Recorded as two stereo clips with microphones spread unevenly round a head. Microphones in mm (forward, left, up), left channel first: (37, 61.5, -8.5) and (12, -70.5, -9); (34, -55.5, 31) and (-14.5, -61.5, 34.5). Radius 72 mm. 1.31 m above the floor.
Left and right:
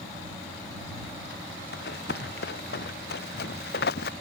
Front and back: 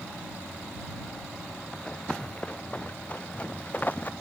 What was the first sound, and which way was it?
Running footsteps, 90° left.